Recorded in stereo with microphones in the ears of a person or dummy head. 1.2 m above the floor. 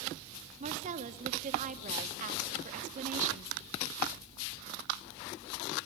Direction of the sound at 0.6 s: 40° right (ahead or behind).